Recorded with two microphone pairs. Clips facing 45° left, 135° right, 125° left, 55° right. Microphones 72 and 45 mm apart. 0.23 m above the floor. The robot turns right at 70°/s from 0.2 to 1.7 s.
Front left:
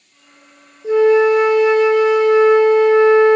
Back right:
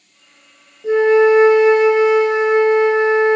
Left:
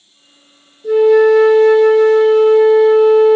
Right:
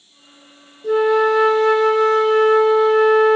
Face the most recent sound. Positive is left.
turn(degrees=-80)